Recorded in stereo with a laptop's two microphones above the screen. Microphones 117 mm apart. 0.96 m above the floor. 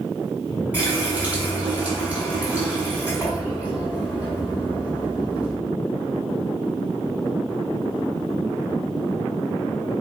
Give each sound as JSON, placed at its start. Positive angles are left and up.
{"t": 0.7, "sound": "a running tap", "side_deg": -15, "distance_m": 1.9}